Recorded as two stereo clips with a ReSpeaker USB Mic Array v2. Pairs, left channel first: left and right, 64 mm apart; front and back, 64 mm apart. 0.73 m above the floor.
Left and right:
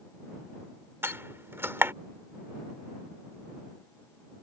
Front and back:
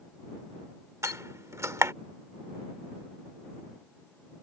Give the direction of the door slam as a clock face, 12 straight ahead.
5 o'clock.